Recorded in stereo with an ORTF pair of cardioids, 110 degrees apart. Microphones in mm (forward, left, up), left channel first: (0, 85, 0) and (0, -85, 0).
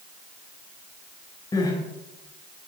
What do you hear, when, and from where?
1.5 s crying: 25° left, 4 m